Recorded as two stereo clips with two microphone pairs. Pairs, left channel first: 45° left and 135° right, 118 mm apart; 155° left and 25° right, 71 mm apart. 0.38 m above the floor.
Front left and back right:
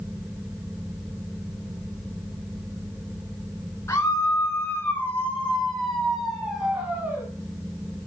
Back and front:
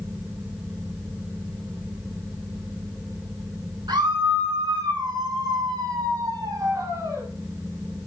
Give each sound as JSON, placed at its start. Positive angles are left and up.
{"t": 3.9, "sound": "a scream", "azimuth_deg": -20, "distance_m": 4.5}